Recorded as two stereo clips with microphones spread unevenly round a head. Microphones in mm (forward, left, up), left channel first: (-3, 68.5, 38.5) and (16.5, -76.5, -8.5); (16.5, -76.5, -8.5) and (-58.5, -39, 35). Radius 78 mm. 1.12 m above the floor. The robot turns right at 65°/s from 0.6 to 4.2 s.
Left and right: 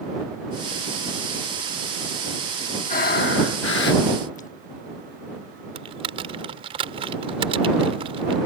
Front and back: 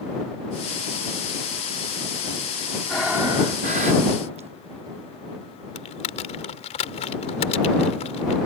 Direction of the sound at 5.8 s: 20° right.